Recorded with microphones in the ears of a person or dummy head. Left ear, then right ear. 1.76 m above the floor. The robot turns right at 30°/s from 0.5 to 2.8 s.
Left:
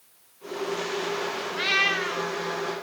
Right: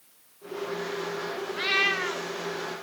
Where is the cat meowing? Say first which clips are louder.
Left 1 dB; 5° left (ahead or behind), 1.0 m; by 2.3 s 5° right (ahead or behind), 1.0 m.